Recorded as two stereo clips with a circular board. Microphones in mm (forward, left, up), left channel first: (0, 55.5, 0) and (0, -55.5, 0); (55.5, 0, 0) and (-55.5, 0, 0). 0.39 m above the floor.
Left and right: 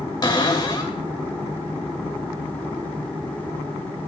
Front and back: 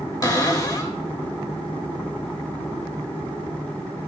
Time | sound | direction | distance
0.2 | a cupboard door | 45° left | 1.0 m